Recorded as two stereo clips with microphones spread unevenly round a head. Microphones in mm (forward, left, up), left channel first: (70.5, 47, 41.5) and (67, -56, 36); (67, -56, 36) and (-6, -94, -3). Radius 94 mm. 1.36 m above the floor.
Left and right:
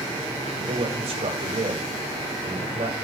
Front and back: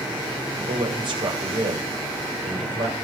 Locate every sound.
0.6 s a man speaking: 135° right, 7 m